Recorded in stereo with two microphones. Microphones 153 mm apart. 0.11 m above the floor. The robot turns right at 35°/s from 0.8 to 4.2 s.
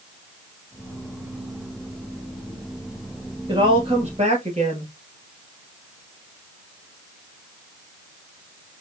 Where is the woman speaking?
30° right (ahead or behind), 2 m; by 4.9 s 45° right (ahead or behind), 2 m.